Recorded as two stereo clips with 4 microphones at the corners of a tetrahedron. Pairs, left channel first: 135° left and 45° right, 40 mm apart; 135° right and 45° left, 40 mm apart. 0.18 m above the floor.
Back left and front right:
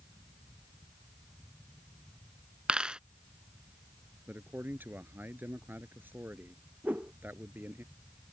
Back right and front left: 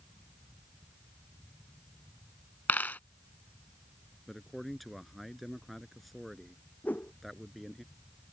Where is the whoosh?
90° right.